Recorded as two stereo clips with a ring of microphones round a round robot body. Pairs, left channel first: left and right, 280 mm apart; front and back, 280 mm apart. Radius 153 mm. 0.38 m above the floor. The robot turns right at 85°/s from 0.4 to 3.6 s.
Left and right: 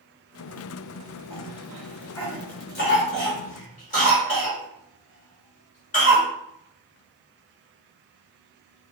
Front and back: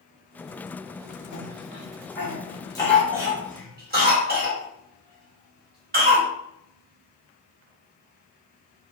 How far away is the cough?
About 1.4 m.